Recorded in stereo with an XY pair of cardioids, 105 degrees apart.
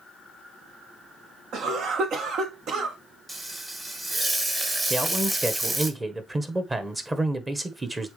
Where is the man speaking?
25° right, 1.4 m.